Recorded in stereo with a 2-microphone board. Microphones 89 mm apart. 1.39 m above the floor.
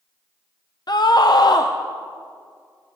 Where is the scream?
50° left (ahead or behind), 0.6 m.